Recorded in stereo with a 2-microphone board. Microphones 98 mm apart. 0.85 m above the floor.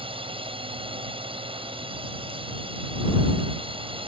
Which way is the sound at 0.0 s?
70° right (ahead or behind).